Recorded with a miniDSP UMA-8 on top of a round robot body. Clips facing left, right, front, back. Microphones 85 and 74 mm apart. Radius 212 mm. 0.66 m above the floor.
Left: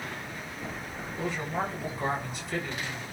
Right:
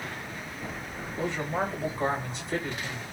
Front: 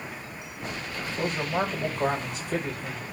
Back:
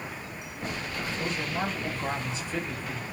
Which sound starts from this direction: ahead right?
A man speaking, at 1.2 s.